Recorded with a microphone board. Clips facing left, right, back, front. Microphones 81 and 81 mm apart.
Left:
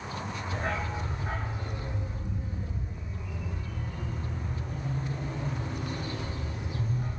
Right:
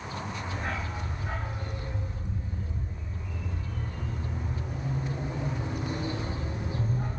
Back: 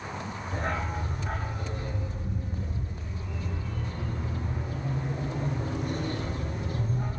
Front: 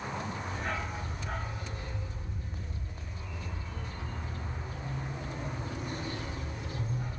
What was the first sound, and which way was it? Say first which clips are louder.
A dog barking: left 5 dB, back 8 dB; 145° left.